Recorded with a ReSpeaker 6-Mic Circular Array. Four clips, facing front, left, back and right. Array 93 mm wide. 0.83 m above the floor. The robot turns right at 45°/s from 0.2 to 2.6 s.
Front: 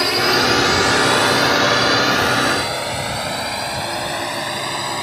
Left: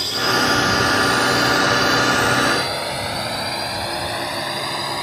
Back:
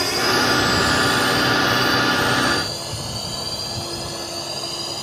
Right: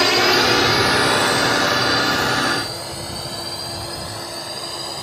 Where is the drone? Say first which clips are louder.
Right 4 dB, front 3 dB; 75° right; by 5.0 s 35° left.